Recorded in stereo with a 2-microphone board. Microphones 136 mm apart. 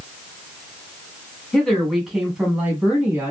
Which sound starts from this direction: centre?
A woman speaking, at 1.5 s.